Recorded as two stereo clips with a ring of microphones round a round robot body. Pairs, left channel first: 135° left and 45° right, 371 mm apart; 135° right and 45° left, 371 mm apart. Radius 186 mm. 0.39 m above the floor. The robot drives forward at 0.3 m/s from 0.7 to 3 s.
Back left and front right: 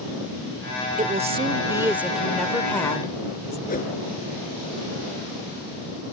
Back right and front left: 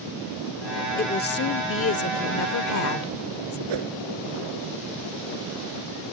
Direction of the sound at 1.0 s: 95° right.